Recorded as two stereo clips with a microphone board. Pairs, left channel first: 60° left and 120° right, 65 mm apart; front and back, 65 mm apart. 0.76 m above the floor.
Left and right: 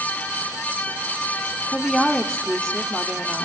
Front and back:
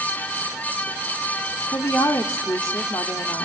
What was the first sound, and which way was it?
A woman speaking, 25° right.